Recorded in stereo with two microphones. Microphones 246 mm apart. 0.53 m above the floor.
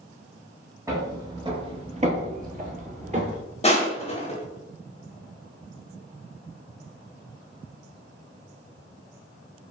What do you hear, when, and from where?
0.9 s footsteps: 15° right (ahead or behind), 1.0 m; by 3.4 s 30° right (ahead or behind), 0.8 m
3.6 s crushing: 25° left (ahead or behind), 0.6 m